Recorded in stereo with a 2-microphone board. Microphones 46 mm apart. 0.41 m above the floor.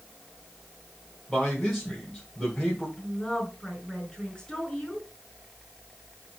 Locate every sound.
1.3 s a man speaking: 5° left (ahead or behind), 2 m
3.0 s a woman speaking: 15° left (ahead or behind), 4 m